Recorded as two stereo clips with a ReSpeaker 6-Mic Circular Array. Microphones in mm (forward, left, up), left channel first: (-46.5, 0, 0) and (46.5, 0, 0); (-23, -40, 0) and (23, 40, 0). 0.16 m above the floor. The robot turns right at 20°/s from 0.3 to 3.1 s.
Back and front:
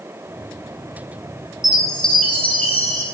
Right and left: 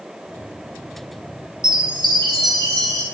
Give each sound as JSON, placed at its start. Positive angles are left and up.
{"t": 1.6, "sound": "a chime", "azimuth_deg": 80, "distance_m": 2.5}